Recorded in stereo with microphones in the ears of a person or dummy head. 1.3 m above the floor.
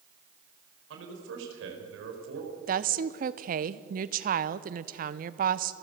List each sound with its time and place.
0.9 s a man speaking: 75° right (ahead or behind), 4.5 m
2.7 s a woman speaking: 45° right (ahead or behind), 0.7 m